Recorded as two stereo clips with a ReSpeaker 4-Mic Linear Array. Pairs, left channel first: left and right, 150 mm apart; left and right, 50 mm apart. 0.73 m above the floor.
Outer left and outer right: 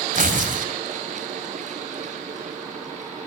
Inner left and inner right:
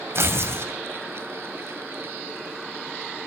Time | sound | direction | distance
0.1 | tearing paper | 60° right (ahead or behind) | 1.7 m